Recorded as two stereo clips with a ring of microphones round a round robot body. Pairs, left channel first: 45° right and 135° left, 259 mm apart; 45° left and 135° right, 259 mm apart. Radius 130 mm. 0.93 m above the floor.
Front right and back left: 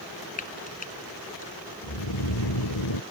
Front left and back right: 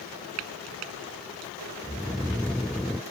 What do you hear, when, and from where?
0.4 s frying: 105° right
1.8 s snoring: 45° right